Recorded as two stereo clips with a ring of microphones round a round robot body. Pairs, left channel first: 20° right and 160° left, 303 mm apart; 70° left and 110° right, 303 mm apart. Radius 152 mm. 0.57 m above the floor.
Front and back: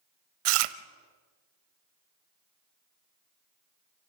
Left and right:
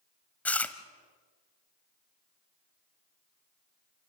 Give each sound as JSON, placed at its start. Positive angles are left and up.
{"t": 0.5, "sound": "chewing", "azimuth_deg": 155, "distance_m": 0.9}